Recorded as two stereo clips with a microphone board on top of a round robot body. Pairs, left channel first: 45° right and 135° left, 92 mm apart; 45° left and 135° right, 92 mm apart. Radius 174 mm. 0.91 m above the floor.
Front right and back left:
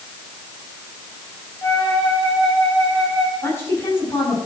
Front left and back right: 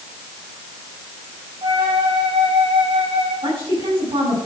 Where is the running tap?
I don't hear a running tap.